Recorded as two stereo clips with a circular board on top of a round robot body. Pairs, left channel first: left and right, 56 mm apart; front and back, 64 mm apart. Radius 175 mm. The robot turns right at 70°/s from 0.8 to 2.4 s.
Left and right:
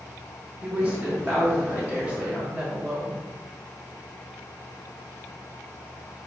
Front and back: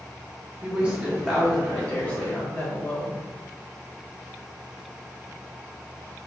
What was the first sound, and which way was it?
A woman speaking, 130° right.